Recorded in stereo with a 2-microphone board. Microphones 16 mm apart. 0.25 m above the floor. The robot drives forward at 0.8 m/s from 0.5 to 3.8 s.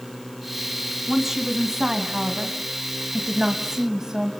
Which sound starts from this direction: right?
A woman speaking, at 1.1 s.